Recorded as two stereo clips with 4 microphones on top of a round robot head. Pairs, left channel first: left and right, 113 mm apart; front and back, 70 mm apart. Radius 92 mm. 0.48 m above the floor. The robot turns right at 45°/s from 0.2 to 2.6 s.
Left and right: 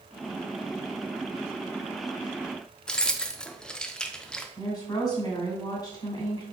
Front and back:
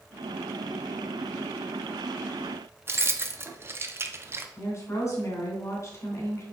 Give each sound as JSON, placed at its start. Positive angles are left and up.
{"t": 2.9, "sound": "keys jangling", "azimuth_deg": 165, "distance_m": 0.5}
{"t": 4.6, "sound": "a woman speaking", "azimuth_deg": 35, "distance_m": 2.5}